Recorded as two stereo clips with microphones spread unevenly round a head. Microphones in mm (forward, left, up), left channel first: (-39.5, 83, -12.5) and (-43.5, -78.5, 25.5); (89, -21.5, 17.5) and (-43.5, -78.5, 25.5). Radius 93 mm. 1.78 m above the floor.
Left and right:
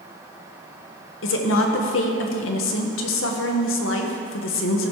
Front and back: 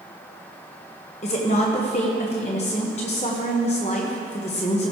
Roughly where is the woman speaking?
Left.